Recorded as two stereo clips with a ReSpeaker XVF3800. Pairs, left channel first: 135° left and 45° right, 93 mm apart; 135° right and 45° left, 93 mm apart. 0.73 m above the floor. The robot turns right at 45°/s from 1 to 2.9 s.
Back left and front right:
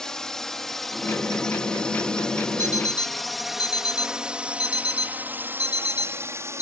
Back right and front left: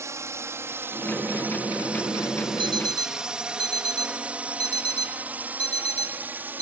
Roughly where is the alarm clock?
Left.